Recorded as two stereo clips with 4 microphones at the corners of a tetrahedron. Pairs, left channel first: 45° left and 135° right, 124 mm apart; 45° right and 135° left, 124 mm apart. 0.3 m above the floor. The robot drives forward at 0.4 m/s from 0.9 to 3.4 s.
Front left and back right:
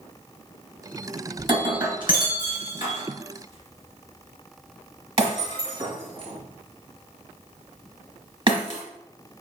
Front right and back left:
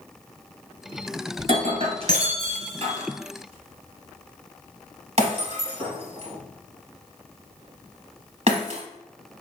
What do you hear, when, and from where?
1.4 s breaking glass: 175° left, 1.7 m